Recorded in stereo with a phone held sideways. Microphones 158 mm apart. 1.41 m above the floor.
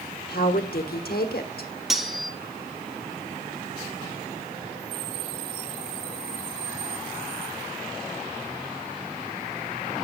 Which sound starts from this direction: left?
A woman speaking, at 0.3 s.